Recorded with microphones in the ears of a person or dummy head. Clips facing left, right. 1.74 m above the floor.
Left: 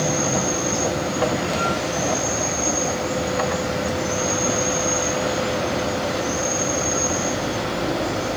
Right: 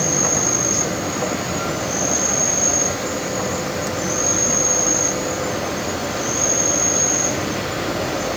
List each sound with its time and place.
0.0 s an insect: 60° right (ahead or behind), 2.5 m